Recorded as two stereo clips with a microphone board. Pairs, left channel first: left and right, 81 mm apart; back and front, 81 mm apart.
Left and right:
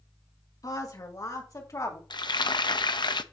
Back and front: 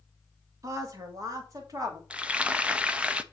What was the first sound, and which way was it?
A woman speaking, 45° left.